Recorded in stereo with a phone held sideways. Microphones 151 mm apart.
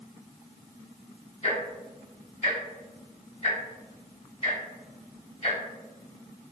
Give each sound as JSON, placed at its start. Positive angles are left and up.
{"t": 1.4, "sound": "ticking", "side_deg": 45, "distance_m": 1.3}